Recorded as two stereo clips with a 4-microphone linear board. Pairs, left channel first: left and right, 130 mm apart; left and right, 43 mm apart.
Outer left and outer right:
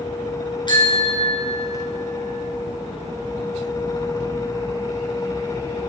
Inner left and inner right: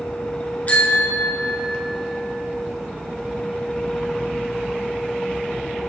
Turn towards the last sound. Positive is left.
turn(degrees=50)  # may be behind; listen again after turning